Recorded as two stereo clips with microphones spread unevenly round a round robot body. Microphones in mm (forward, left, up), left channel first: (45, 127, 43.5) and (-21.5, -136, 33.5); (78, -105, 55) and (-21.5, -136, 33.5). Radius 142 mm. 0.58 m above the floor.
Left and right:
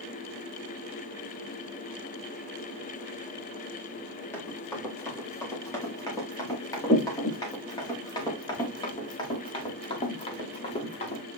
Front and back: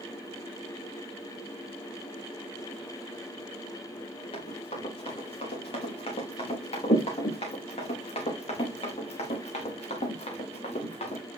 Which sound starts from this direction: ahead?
Running footsteps, at 4.3 s.